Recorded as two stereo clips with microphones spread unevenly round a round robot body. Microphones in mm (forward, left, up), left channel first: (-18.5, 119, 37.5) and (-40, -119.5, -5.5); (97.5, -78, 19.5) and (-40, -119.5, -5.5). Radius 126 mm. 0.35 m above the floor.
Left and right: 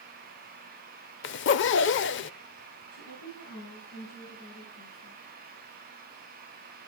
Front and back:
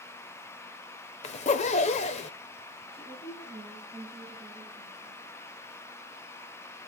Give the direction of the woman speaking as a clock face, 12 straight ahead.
9 o'clock.